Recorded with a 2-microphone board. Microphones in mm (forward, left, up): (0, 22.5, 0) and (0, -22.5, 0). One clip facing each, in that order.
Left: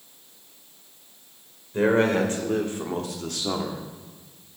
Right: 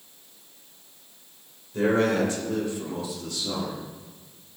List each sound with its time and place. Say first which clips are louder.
1.7 s a man speaking: left 2 dB; 30° left (ahead or behind), 2.5 m; by 3.8 s 45° left (ahead or behind), 1.6 m